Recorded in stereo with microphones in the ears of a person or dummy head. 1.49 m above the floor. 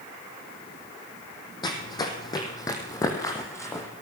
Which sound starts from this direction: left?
Running footsteps, at 1.6 s.